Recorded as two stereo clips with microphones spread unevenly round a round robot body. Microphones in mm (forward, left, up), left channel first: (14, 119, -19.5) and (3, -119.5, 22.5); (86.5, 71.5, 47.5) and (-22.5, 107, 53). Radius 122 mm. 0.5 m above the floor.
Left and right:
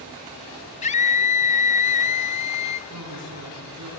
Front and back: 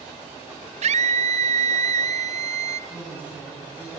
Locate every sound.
0.8 s a scream: 145° left, 2 m
2.9 s a woman speaking: 120° right, 6.5 m